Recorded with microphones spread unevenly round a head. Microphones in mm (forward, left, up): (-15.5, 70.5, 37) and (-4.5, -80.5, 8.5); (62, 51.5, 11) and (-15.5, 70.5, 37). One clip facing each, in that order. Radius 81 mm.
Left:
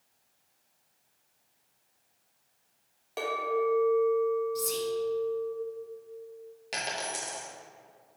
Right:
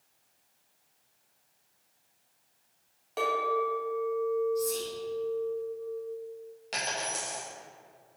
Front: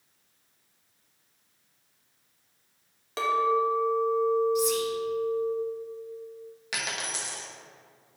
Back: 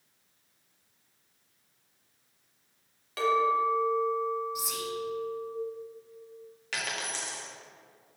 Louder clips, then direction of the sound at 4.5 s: Right 1 dB, front 10 dB; 85° left.